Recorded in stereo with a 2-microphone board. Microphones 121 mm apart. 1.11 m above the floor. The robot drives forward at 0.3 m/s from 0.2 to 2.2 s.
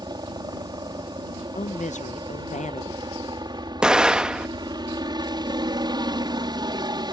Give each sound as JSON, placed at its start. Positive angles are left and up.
{"t": 0.0, "sound": "a helicopter", "side_deg": -35}
{"t": 1.6, "sound": "a woman speaking", "side_deg": 80}
{"t": 3.8, "sound": "an explosion", "side_deg": -5}